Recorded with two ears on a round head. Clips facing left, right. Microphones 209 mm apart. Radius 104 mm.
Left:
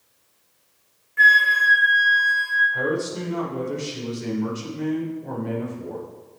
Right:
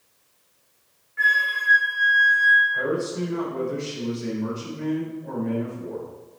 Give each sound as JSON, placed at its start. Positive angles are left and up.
{"t": 1.2, "sound": "a flute", "side_deg": 55, "distance_m": 2.0}
{"t": 2.7, "sound": "a man speaking", "side_deg": 50, "distance_m": 4.0}